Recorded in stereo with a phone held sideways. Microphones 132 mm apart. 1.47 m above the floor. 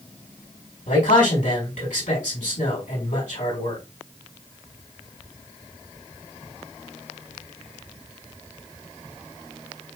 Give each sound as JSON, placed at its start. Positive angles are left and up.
{"t": 0.9, "sound": "a man speaking", "side_deg": 80, "distance_m": 4.5}